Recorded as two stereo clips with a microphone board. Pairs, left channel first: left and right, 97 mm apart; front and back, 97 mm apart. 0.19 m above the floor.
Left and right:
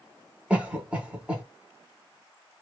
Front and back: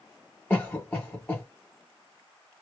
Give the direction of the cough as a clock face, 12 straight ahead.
1 o'clock.